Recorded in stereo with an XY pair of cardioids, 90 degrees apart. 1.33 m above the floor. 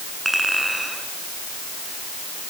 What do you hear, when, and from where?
0.2 s a clink: 5° right, 9.5 m